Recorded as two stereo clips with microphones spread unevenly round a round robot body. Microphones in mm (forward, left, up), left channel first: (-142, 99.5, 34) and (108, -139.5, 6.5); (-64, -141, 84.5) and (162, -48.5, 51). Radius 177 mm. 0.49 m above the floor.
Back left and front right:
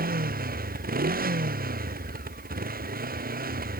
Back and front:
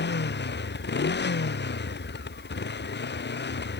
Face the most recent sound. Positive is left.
turn(degrees=-110)